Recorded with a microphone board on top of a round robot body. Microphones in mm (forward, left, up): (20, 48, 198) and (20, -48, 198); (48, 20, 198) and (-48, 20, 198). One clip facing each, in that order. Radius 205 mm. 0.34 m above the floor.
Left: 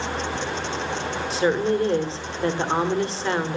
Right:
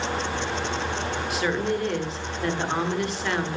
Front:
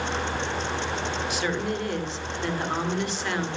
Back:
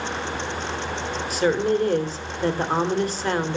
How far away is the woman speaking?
About 2 m.